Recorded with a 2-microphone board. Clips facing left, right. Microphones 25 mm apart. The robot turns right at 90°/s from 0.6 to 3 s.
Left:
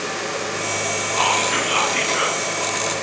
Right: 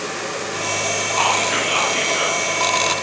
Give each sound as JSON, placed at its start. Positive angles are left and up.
{"t": 1.2, "sound": "whispering", "side_deg": -15, "distance_m": 1.2}